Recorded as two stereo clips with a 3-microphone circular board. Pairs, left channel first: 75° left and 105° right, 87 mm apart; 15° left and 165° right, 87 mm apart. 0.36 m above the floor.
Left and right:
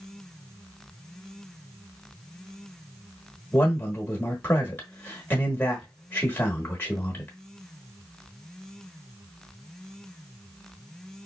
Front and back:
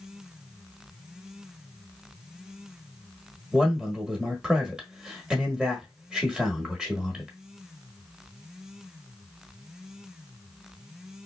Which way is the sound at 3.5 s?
125° left.